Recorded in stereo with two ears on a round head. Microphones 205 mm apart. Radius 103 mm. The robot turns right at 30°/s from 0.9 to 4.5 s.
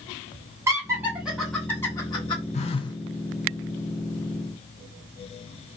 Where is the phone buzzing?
30° left (ahead or behind), 0.6 m; by 3.0 s 15° left (ahead or behind), 0.6 m.